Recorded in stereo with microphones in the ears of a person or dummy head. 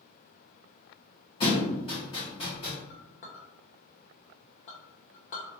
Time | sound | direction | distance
1.4 | a thud | 25° left (ahead or behind) | 1.2 m
2.9 | a clink | 45° left (ahead or behind) | 0.6 m